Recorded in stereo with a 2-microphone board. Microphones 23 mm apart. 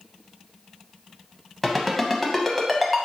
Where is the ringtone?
Centre (ahead or behind), 0.7 m.